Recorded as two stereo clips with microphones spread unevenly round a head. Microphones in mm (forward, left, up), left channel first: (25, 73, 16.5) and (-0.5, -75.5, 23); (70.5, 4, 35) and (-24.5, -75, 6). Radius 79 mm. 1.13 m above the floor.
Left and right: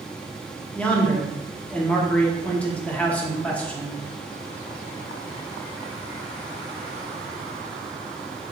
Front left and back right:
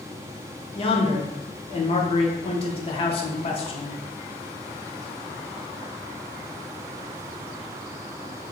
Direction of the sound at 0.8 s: 5° left.